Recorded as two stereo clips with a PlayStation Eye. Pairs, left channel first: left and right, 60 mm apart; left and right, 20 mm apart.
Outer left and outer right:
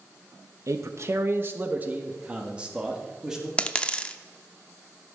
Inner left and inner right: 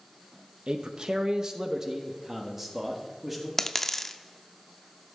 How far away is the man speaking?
About 0.8 m.